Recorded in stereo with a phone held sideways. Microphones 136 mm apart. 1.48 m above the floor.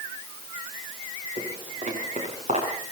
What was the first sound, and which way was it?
Footsteps, 55° right (ahead or behind).